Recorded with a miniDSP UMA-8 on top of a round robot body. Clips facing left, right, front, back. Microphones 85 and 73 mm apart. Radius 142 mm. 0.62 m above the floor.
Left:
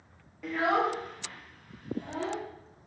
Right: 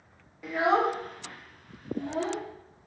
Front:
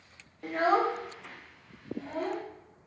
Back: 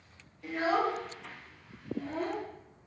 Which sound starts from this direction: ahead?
A child speaking, at 0.4 s.